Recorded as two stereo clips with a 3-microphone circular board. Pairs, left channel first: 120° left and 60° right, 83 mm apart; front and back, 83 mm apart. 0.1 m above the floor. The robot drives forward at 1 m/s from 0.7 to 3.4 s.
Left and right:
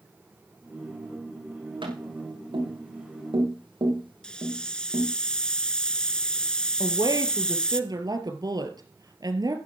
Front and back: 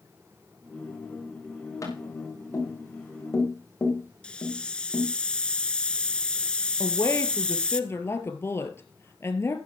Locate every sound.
1.8 s tapping: 50° right, 7.5 m; by 5.1 s 60° right, 7 m
4.2 s a hiss: 60° left, 0.7 m
6.8 s a woman speaking: 50° right, 2.5 m